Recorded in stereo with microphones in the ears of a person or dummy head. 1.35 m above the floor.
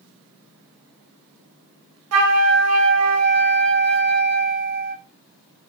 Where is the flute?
70° right (ahead or behind), 0.8 m.